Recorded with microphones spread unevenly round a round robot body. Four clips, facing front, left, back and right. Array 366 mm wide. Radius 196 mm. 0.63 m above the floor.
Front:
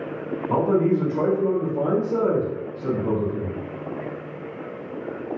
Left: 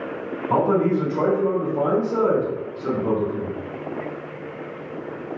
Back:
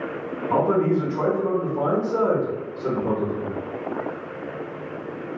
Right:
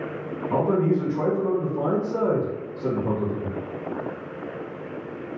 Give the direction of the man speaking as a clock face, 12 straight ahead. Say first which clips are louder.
Left 3 dB, even; 10 o'clock.